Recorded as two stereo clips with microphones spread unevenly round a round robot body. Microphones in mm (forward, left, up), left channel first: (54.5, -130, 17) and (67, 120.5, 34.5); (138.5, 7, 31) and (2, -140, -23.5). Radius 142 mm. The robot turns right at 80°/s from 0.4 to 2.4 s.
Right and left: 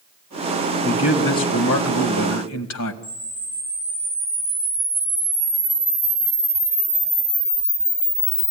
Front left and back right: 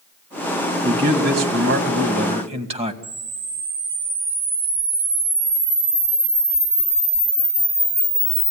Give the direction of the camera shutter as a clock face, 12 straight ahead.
6 o'clock.